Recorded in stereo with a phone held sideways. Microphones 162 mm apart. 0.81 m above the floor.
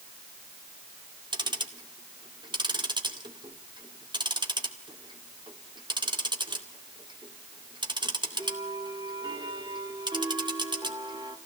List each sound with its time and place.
1.3 s ticking: 25° right (ahead or behind), 2.5 m